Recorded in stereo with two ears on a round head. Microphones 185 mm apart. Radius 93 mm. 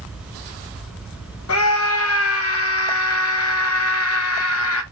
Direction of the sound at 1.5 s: 80° left.